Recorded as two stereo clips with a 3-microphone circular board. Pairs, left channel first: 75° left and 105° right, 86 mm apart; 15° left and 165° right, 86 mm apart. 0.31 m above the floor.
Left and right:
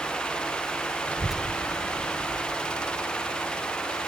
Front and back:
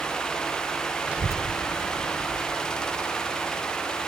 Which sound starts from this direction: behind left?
A child speaking, at 1.1 s.